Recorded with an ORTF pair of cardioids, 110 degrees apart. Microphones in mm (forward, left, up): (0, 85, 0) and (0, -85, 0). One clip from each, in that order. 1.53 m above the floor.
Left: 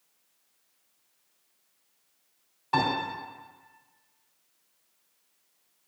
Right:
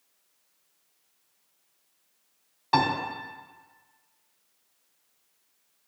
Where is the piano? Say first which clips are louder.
Right 3 dB; 25° right, 3 m.